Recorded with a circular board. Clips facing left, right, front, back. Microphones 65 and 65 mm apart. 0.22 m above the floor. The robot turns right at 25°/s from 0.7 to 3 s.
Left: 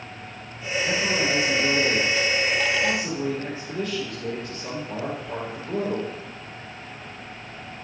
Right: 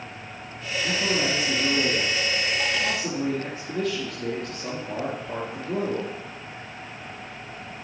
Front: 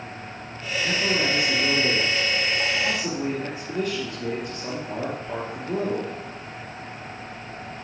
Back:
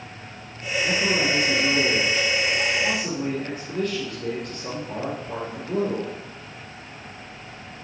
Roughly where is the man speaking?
Behind right.